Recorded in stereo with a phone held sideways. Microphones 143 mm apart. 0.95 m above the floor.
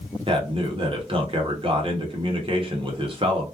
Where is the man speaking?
40° right (ahead or behind), 1.1 m.